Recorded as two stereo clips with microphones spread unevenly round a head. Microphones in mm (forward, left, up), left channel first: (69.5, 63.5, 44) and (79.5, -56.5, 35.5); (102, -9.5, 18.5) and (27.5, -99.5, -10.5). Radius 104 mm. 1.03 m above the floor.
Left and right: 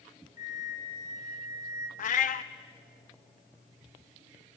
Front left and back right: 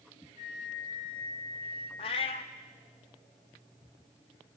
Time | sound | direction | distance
0.4 | a flute | 90° left | 3 m
2.0 | a cat meowing | 100° left | 0.7 m